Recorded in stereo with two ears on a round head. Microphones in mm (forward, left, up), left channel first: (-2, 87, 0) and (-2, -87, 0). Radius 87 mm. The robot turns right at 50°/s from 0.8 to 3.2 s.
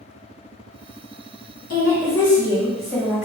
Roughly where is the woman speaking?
Behind left.